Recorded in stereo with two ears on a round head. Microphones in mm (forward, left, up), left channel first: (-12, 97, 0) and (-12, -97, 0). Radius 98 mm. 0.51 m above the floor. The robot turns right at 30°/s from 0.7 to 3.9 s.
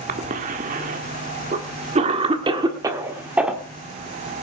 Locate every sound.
0.1 s a cough: 40° right (ahead or behind), 1.4 m; by 3.6 s centre (ahead or behind), 1.4 m